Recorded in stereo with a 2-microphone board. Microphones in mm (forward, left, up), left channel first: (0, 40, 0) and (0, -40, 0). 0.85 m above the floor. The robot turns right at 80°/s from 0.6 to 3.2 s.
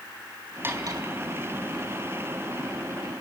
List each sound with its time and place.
0.6 s cutlery clinking: 25° right (ahead or behind), 3.5 m; by 1.0 s 60° right (ahead or behind), 3.5 m